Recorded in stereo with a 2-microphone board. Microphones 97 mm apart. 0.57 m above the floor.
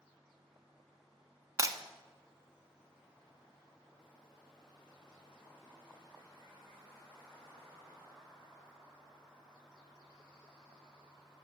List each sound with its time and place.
1.6 s breaking glass: 35° right (ahead or behind), 0.8 m